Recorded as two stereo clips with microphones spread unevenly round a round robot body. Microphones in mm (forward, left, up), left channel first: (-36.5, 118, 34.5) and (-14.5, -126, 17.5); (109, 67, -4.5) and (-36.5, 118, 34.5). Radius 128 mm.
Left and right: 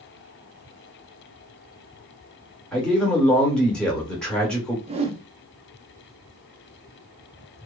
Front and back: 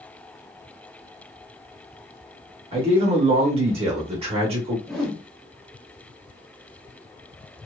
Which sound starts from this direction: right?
A whoosh, at 4.9 s.